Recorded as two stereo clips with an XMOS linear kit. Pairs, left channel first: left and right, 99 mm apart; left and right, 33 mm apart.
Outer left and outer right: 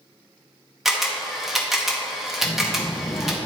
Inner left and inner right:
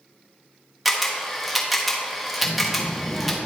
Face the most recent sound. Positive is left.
turn(degrees=30)  # may be behind; listen again after turning